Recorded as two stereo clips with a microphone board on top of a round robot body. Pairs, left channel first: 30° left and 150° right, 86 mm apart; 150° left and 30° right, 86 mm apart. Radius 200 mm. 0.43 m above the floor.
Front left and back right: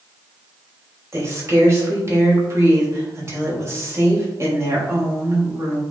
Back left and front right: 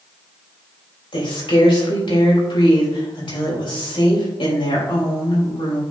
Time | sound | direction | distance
1.1 | a woman speaking | 155° left | 3.5 m